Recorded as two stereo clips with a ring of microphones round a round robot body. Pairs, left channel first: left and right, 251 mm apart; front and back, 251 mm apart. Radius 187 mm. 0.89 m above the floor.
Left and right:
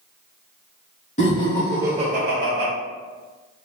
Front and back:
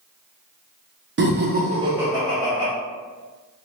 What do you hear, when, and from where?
1.2 s laughter: 145° left, 0.7 m; by 2.7 s 65° right, 0.8 m